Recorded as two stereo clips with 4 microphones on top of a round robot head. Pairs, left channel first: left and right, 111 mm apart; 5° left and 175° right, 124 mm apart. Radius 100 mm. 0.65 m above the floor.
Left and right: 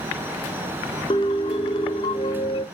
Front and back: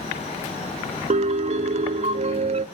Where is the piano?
150° left, 0.5 m.